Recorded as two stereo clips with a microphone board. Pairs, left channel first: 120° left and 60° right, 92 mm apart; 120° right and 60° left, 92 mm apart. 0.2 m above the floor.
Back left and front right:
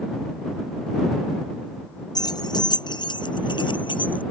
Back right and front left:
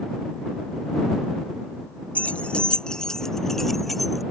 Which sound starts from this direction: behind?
Keys jangling, at 2.1 s.